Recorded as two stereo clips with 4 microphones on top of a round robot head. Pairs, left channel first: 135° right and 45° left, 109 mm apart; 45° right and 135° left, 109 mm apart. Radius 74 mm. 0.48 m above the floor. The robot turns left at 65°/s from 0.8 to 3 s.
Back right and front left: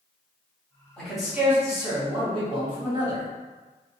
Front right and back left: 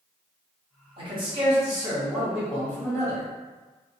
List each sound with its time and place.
1.0 s a man speaking: 145° left, 1.5 m; by 3.2 s 10° left, 1.5 m